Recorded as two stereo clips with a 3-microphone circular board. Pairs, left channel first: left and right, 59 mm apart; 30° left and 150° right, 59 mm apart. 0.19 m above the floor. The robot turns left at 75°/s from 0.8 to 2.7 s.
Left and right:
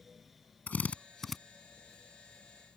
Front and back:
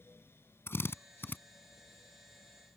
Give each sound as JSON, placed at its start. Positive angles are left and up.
{"t": 0.7, "sound": "a drill", "azimuth_deg": 40}